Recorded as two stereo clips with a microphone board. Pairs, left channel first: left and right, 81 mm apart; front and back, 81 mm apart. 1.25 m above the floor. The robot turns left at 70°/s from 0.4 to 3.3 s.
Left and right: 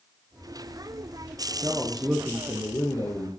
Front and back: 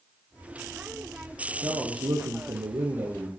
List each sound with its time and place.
1.6 s a man speaking: 140° right, 0.9 m; by 3.3 s 105° left, 0.9 m